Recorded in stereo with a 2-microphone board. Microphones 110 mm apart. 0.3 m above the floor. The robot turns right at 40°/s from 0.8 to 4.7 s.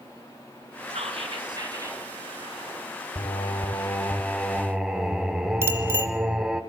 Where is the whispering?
70° right, 3.5 m; by 2.0 s 25° right, 3.5 m.